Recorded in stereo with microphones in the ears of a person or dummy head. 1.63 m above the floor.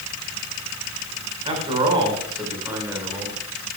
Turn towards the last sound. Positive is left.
turn(degrees=-10)  # may be behind; listen again after turning